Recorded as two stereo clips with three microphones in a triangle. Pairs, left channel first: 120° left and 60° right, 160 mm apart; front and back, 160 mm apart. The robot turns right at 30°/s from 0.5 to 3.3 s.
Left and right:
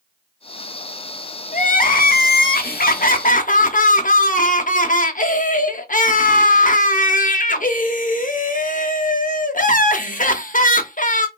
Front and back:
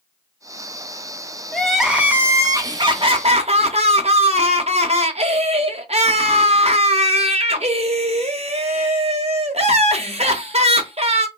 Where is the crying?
85° left, 0.5 m; by 11.3 s 140° left, 0.5 m.